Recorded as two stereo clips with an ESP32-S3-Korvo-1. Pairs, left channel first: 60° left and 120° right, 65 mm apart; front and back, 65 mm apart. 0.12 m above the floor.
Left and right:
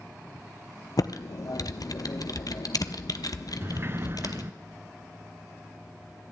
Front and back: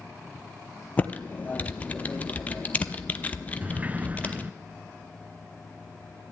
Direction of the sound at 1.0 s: 65° left.